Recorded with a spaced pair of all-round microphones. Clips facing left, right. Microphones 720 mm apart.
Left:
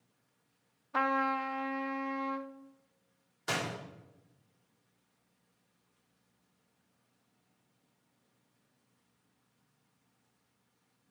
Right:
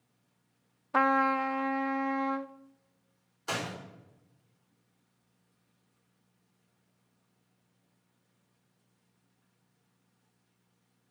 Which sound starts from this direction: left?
A door slam, at 3.5 s.